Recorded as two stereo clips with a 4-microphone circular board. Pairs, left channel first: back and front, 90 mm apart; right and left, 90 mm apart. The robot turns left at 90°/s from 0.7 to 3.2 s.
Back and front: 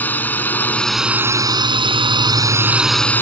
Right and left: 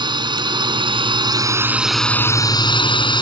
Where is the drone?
110° left; by 3.2 s 115° right.